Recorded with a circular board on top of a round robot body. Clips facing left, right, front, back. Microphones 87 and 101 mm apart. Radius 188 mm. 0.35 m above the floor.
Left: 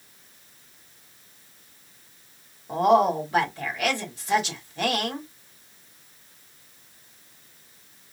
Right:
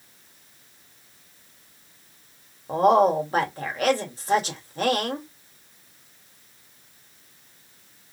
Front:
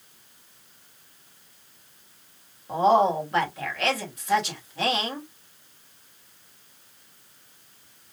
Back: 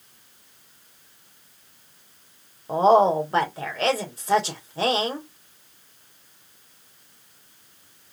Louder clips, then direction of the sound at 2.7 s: Right 1 dB, back 3 dB; 130° right.